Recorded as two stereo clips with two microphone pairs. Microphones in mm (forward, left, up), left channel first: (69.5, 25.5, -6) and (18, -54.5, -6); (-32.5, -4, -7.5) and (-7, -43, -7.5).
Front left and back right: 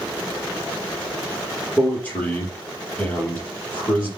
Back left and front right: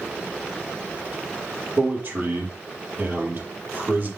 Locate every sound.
1.8 s a man speaking: 15° right, 5 m